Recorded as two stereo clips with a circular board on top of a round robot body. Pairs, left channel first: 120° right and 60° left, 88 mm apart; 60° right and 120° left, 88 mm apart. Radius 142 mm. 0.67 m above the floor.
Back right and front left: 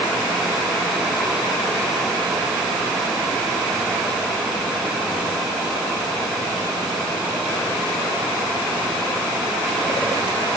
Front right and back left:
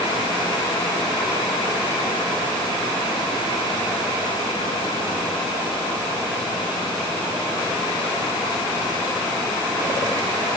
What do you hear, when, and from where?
Only background noise.